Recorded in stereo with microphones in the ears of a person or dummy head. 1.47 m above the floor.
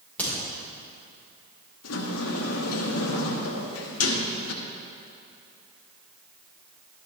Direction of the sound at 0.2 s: 10° left (ahead or behind).